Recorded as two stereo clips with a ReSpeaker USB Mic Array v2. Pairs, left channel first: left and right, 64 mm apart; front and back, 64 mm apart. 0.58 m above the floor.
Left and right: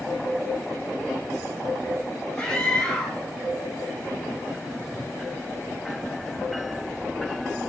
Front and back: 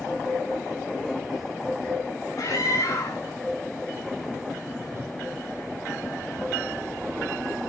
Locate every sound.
2.4 s a scream: 10° left, 5.5 m
4.9 s a whoosh: 140° left, 1.7 m